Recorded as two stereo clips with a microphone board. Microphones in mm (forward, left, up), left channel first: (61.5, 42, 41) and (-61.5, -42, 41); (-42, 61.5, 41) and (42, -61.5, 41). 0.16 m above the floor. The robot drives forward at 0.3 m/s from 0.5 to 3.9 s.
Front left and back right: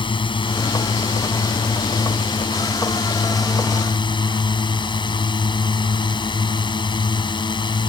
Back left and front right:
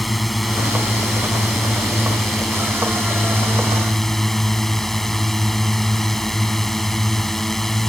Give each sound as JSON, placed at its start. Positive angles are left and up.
{"t": 0.0, "sound": "a drone", "azimuth_deg": 35}